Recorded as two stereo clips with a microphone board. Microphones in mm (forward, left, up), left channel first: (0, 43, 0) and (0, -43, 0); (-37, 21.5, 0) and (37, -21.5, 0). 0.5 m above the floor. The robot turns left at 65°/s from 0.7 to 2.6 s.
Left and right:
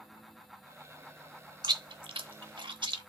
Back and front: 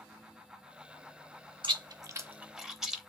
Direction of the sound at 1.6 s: 55° right.